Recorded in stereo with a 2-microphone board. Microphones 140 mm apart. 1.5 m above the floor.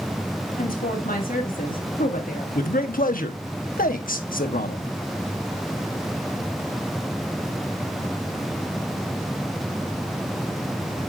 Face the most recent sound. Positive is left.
turn(degrees=80)